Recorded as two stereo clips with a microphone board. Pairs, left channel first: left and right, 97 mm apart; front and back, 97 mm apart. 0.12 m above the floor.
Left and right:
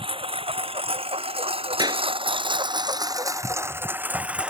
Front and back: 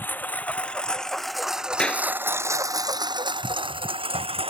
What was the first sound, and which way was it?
A lawn mower, 70° right.